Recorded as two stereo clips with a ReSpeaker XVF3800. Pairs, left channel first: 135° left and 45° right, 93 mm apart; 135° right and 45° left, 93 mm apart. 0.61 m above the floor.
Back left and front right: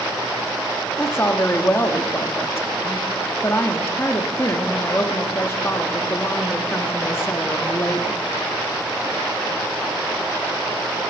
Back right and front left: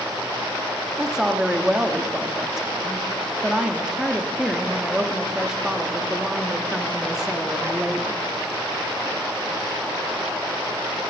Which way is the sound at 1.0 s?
120° left.